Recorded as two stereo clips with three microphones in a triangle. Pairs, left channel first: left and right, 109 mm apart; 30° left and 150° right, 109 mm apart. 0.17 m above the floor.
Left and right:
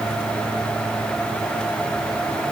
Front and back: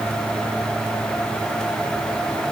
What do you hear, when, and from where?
Only background noise.